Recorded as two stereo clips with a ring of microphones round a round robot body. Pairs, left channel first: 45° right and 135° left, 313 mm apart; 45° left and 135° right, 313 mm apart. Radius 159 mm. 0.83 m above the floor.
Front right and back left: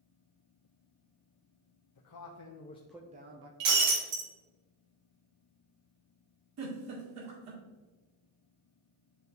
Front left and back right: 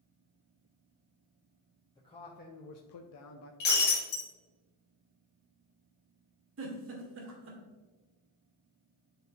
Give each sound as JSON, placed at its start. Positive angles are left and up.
{"t": 1.9, "sound": "a man speaking", "azimuth_deg": -30, "distance_m": 1.1}
{"t": 3.6, "sound": "breaking glass", "azimuth_deg": 105, "distance_m": 1.5}
{"t": 6.6, "sound": "a giggle", "azimuth_deg": 175, "distance_m": 1.9}